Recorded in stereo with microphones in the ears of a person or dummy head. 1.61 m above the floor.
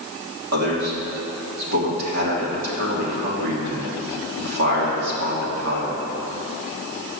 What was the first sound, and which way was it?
A man speaking, 80° right.